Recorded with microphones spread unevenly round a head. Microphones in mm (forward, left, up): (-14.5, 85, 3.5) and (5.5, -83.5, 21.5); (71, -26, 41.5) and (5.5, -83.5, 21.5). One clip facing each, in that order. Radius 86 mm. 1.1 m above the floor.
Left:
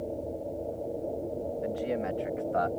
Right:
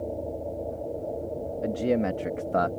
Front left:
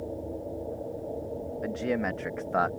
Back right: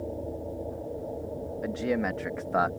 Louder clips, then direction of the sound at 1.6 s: Right 8 dB, back right 1 dB; 50° right.